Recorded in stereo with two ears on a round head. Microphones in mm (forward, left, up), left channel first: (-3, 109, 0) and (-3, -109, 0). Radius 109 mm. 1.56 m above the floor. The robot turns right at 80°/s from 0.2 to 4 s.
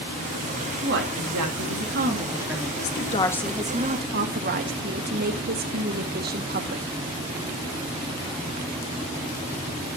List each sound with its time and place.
0.8 s a woman speaking: 140° right, 2.5 m; by 2.7 s 10° left, 2.5 m
2.8 s a woman speaking: 125° left, 1.6 m; by 6.8 s 135° right, 1.6 m